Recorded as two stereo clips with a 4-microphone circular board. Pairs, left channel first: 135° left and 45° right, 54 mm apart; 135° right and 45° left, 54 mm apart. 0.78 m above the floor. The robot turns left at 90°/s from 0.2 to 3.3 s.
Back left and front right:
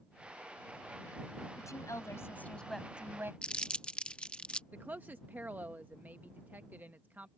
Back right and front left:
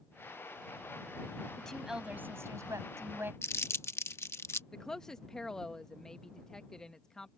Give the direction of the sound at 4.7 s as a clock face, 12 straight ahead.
2 o'clock.